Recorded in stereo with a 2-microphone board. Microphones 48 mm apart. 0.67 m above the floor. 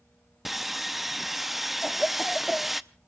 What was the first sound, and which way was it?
Sawing, 5° right (ahead or behind).